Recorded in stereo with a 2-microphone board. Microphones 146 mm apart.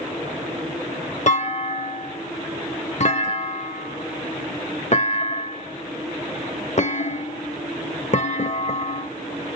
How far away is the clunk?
About 0.6 m.